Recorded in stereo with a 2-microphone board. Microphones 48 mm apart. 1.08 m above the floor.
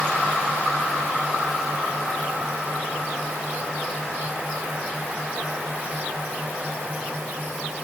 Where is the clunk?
I don't hear a clunk.